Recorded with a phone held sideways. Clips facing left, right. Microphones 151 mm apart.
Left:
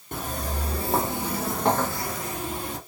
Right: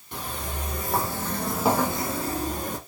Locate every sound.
0.1 s footsteps: 50° left (ahead or behind), 2.0 m; by 2.8 s 45° right (ahead or behind), 1.8 m